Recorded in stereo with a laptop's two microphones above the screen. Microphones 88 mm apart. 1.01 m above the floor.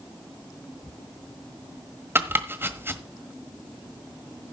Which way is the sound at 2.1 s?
25° right (ahead or behind).